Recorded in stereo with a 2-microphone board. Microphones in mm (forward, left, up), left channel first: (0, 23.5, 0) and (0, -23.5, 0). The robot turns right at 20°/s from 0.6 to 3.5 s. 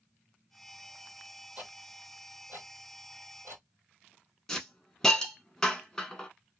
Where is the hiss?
10° left (ahead or behind), 0.7 m.